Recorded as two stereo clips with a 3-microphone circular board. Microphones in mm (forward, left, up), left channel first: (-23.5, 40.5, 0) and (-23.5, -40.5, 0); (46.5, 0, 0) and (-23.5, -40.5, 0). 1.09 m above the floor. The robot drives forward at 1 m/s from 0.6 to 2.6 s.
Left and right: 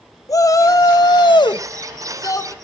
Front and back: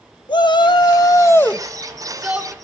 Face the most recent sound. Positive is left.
turn(degrees=145)